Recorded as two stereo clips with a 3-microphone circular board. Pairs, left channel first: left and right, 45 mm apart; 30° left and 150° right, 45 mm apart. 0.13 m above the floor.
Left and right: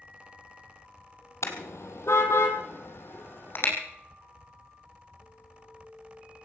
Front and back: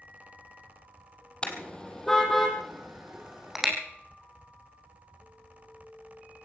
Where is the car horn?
95° left, 2.5 m; by 3.7 s 130° left, 4 m.